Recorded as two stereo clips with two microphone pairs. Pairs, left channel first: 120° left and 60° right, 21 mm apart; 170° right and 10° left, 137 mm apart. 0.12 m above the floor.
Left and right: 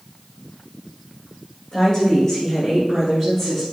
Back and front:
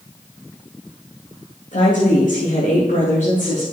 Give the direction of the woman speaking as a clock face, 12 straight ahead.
6 o'clock.